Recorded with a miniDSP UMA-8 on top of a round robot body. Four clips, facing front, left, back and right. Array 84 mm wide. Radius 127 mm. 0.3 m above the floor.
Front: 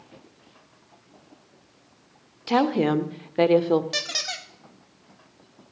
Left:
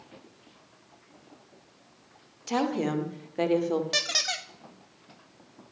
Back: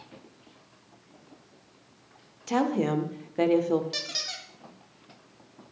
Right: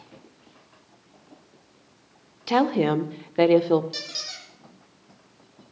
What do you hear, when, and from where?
2.5 s a woman speaking: 55° right, 1.1 m
3.9 s a squeak: 55° left, 0.8 m